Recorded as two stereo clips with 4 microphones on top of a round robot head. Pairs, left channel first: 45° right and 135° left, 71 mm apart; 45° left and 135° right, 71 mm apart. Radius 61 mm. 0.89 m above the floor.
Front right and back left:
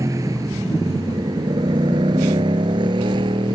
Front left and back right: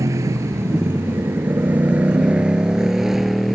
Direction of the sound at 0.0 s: Straight behind.